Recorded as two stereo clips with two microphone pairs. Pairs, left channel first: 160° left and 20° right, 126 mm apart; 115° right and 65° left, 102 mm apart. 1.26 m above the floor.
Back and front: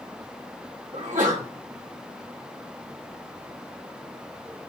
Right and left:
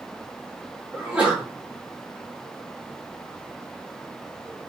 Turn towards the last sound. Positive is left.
turn(degrees=-10)